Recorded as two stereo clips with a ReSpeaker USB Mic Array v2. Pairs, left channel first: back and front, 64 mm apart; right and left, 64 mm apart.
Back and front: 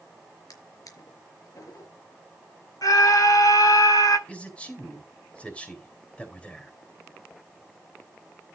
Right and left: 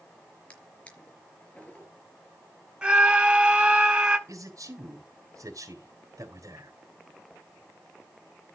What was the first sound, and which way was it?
A drawer, 160° right.